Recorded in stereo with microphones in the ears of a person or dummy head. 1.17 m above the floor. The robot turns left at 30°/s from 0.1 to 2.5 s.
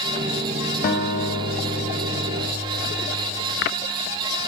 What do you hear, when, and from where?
0.8 s a guitar: 70° left, 0.9 m; by 3.3 s 25° left, 0.9 m